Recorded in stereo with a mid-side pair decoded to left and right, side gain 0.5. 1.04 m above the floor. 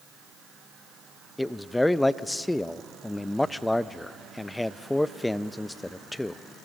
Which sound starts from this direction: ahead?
A man speaking, at 1.4 s.